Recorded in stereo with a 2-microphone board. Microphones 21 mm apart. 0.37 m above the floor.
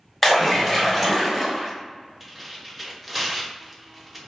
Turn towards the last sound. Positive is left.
turn(degrees=0)  # may be behind; listen again after turning